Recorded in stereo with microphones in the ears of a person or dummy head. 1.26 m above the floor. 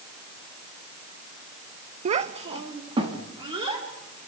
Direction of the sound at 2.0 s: 40° right (ahead or behind).